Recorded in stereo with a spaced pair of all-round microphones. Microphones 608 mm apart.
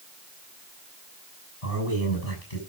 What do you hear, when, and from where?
1.6 s a man speaking: 70° left (ahead or behind), 8 m